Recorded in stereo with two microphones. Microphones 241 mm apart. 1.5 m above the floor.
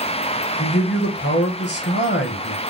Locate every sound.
0.6 s a man speaking: 45° left (ahead or behind), 0.9 m